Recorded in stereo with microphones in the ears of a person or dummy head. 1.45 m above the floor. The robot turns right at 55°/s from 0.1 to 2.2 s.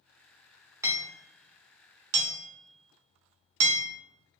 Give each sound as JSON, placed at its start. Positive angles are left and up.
{"t": 0.8, "sound": "hammering", "side_deg": -15, "distance_m": 0.6}